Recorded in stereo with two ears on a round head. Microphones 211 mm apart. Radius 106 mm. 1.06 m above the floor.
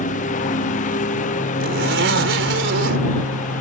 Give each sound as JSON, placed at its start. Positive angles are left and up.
{"t": 0.0, "sound": "a lawn mower", "side_deg": 35}
{"t": 1.6, "sound": "a zipper", "side_deg": -55}